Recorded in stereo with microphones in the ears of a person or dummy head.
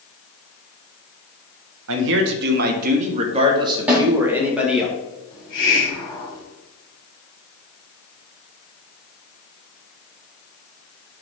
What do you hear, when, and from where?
1.9 s a man speaking: 75° right (ahead or behind), 1.6 m; by 4.9 s 5° right (ahead or behind), 2 m
3.9 s a snare drum: 10° right (ahead or behind), 3 m
5.3 s a hiss: 25° left (ahead or behind), 3 m